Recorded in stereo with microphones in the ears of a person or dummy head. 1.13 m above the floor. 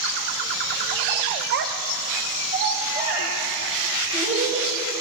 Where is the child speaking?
55° right (ahead or behind), 0.6 m; by 4.7 s 50° right (ahead or behind), 5 m.